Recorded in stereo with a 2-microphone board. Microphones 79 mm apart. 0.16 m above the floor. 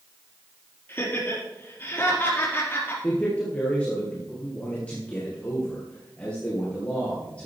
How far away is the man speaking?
About 3 m.